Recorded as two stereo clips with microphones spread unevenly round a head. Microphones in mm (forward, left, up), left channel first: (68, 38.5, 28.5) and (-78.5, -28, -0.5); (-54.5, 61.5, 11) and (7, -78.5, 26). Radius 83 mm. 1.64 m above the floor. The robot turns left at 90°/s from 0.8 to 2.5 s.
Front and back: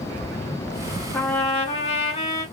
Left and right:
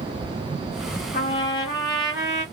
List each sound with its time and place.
1.1 s a trumpet: 90° left, 1.3 m; by 2.4 s 25° right, 1.3 m